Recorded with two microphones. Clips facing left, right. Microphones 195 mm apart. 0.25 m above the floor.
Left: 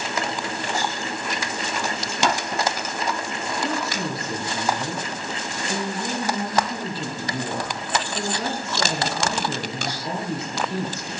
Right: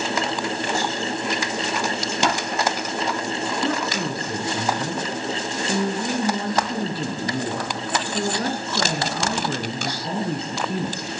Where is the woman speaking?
60° right (ahead or behind), 3 m.